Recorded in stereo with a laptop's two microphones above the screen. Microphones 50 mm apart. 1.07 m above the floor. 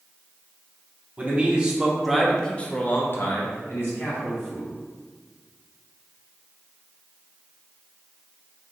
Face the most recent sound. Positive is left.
turn(degrees=55)  # may be behind; listen again after turning